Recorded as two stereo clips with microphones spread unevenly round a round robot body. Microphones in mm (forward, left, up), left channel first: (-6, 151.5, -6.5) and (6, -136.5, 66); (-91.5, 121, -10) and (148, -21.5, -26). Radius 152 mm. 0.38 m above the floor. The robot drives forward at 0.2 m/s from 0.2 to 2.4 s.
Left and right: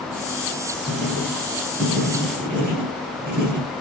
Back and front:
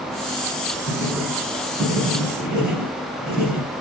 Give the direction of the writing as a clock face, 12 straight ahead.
5 o'clock.